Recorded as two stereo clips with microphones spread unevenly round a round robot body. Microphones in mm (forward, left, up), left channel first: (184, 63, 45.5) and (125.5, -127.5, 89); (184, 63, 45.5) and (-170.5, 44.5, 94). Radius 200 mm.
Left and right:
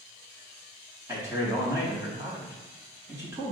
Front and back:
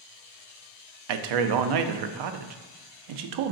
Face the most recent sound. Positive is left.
turn(degrees=170)